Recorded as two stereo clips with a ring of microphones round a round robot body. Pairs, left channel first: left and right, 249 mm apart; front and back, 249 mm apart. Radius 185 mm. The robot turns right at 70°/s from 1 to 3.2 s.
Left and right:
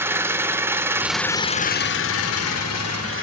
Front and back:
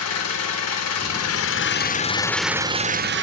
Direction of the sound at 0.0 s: 10° right.